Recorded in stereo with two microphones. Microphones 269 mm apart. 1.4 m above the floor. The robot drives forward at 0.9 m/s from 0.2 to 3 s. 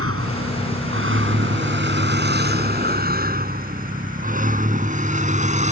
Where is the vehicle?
55° right (ahead or behind); by 5.7 s 25° right (ahead or behind).